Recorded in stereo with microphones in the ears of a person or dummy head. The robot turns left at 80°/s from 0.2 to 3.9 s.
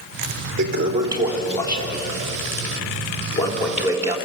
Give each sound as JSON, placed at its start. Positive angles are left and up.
{"t": 0.6, "sound": "a toilet flushing", "side_deg": -65, "distance_m": 3.5}